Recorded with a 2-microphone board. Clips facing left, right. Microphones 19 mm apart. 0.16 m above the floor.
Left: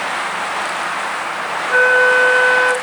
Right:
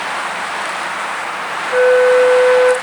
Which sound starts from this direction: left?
A flute, at 1.7 s.